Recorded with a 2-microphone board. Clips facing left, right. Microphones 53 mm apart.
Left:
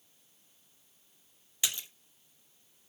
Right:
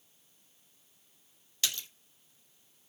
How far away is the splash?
About 0.7 m.